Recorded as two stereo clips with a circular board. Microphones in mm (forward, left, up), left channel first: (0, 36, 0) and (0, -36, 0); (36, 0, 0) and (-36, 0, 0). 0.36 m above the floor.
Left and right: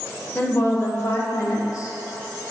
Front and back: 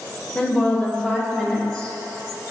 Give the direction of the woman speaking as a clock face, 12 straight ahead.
10 o'clock.